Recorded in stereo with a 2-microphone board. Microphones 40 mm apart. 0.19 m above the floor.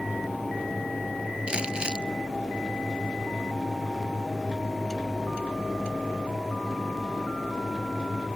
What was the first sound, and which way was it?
Crumpling, 30° right (ahead or behind).